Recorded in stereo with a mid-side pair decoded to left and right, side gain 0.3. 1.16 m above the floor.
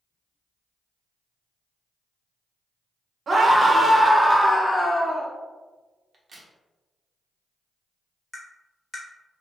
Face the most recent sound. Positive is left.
turn(degrees=20)